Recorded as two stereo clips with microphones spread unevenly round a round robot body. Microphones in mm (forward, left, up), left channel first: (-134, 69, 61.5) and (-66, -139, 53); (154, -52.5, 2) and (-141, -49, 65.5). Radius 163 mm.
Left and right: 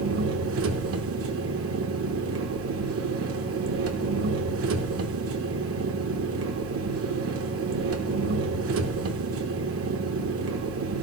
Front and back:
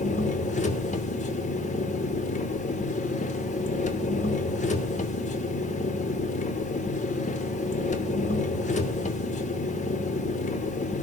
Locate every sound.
0.0 s an engine running: 60° right, 1.2 m